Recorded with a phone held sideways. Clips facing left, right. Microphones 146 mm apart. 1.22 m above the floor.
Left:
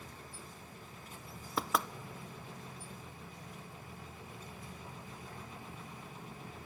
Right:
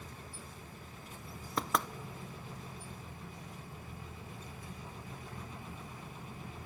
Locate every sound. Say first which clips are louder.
1.6 s knocking: even; centre (ahead or behind), 0.5 m